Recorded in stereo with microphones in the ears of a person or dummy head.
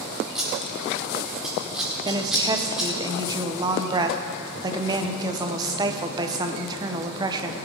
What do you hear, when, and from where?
0.3 s scissors: centre (ahead or behind), 1.5 m
2.0 s a woman speaking: 20° right (ahead or behind), 1.0 m